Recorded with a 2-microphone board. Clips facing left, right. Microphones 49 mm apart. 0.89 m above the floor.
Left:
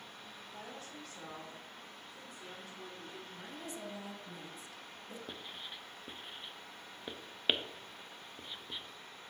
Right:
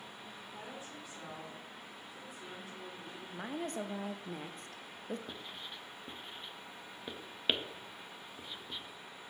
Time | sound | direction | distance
0.5 | a woman speaking | 15° right (ahead or behind) | 3 m
3.3 | a woman speaking | 50° right (ahead or behind) | 0.6 m
5.3 | writing | 10° left (ahead or behind) | 0.5 m